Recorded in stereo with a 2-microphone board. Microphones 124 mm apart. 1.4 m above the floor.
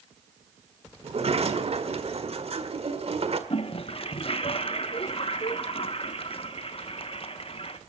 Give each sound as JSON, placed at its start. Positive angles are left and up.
{"t": 1.0, "sound": "a sliding door", "side_deg": -55, "distance_m": 1.6}
{"t": 3.5, "sound": "a toilet flushing", "side_deg": 50, "distance_m": 1.5}